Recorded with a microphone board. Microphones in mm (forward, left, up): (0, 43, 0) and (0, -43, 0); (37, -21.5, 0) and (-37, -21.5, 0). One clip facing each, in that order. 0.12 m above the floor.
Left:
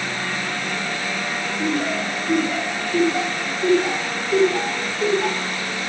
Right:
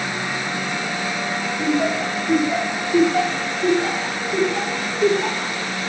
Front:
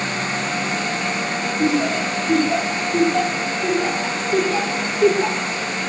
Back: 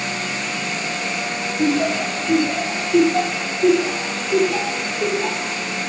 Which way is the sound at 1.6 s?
155° right.